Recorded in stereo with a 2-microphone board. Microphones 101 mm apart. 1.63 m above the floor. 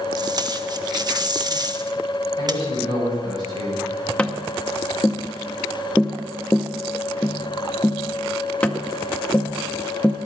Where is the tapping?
15° left (ahead or behind), 0.8 m.